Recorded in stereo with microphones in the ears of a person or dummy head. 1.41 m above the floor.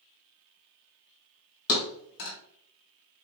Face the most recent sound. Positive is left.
turn(degrees=55)  # may be behind; listen again after turning